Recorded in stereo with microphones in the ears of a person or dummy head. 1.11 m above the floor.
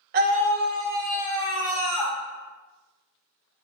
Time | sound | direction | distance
0.1 | a scream | 50° right (ahead or behind) | 0.7 m